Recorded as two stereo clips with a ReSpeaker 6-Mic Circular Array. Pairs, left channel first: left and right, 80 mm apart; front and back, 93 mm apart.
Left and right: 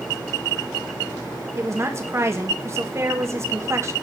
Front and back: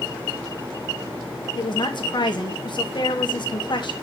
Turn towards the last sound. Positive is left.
turn(degrees=-35)